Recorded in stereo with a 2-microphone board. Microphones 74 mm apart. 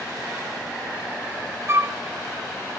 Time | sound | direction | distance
1.7 | a flute | 35° right (ahead or behind) | 0.8 m